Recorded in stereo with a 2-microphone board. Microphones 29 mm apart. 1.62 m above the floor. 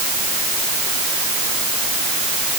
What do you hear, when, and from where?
Only background noise.